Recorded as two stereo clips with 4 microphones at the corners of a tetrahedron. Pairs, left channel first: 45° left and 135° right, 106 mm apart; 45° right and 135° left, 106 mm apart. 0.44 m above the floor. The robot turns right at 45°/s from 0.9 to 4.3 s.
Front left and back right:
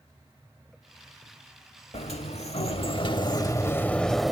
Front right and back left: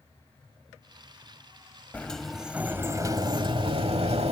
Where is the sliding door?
30° left, 0.9 m; by 4.3 s 135° left, 0.9 m.